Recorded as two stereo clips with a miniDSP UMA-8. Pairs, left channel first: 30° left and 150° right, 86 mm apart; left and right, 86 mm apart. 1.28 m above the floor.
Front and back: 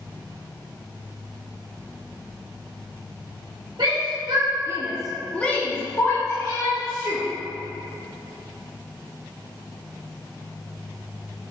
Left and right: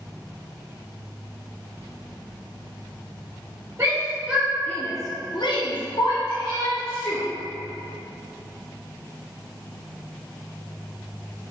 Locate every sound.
3.8 s a shout: 145° right, 1.5 m; by 7.2 s 75° left, 3.5 m